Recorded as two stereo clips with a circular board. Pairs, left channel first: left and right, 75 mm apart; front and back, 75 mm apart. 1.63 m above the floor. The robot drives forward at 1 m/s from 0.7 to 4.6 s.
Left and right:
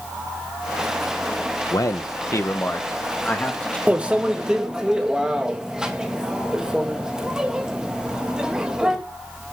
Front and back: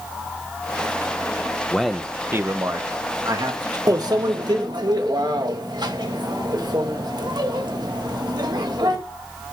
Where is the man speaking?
75° left, 0.8 m; by 3.8 s 160° left, 2 m.